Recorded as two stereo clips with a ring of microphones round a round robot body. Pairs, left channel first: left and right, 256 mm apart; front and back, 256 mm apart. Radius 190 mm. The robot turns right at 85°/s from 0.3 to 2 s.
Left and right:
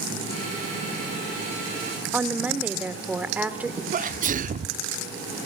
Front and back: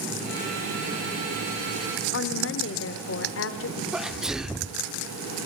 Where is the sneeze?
95° right, 1.0 m.